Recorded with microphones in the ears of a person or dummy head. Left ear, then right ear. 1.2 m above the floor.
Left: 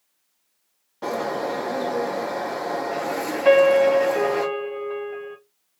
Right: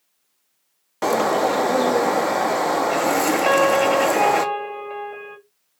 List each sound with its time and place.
1.0 s a bird: 55° right (ahead or behind), 0.5 m
3.5 s a piano: centre (ahead or behind), 0.6 m